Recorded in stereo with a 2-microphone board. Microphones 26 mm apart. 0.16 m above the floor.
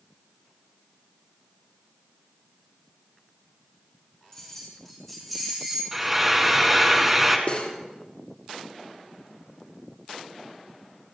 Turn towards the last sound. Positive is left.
turn(degrees=55)  # may be behind; listen again after turning